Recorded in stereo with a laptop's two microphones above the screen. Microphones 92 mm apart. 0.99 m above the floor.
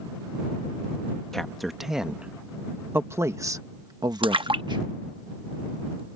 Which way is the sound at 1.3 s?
5° left (ahead or behind).